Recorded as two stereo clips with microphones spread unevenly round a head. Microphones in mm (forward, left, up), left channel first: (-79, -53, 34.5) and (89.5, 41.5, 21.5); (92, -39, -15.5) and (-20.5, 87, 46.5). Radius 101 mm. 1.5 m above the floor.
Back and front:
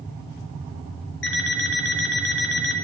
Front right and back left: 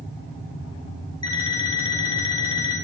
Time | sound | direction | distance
1.2 | an alarm clock | 120° right | 4.5 m